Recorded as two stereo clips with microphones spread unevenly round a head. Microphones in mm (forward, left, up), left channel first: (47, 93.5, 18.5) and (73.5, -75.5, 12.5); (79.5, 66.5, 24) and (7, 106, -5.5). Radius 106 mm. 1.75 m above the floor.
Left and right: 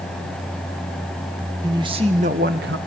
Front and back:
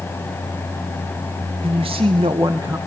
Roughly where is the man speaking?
Behind right.